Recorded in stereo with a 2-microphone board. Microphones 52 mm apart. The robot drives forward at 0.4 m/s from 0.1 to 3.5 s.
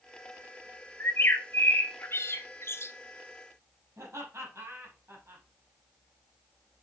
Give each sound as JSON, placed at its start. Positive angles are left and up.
{"t": 1.0, "sound": "a bird", "side_deg": 40, "distance_m": 1.3}
{"t": 4.0, "sound": "laughter", "side_deg": -60, "distance_m": 5.0}